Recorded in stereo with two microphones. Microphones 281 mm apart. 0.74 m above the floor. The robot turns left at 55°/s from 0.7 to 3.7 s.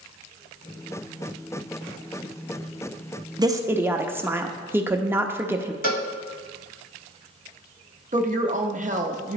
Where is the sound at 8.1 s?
30° right (ahead or behind), 0.6 m.